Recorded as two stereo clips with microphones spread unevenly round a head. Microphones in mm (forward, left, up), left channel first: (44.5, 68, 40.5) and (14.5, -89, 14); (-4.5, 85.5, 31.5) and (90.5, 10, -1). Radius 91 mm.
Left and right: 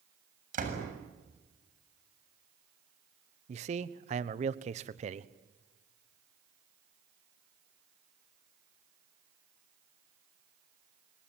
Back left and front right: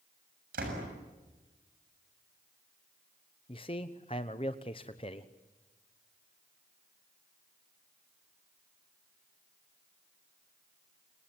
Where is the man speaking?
155° right, 1.0 m.